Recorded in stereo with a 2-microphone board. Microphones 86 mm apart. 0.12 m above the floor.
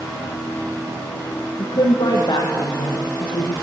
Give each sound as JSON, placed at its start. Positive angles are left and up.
{"t": 1.6, "sound": "a woman speaking", "side_deg": 65, "distance_m": 5.0}